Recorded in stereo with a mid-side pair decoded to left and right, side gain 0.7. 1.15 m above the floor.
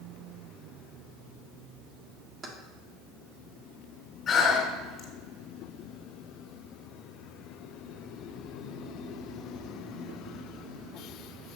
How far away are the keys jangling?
About 1.6 m.